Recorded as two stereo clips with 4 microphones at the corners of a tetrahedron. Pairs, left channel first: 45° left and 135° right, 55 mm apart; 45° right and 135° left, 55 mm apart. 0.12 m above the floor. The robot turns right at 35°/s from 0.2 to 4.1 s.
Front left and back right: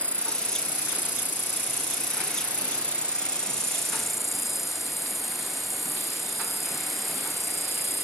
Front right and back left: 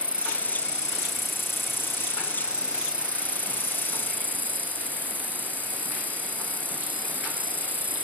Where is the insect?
Straight ahead; by 8.0 s 135° left.